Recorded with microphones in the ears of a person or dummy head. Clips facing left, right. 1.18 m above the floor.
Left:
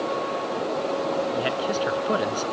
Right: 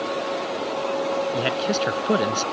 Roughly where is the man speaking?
Right.